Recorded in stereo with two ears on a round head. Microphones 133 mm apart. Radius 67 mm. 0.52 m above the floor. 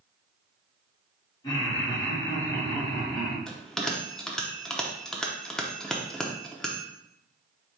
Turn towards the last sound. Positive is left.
turn(degrees=5)  # may be behind; listen again after turning